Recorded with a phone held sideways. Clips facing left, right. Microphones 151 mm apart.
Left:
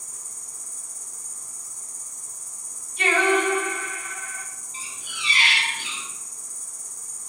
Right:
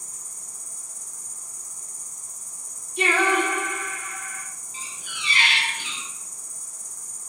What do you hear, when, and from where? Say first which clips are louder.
0.0 s an insect: even; 40° right (ahead or behind), 1.3 m
3.0 s singing: left 1 dB; 70° right (ahead or behind), 1.0 m
4.7 s a squeak: even; 30° left (ahead or behind), 1.2 m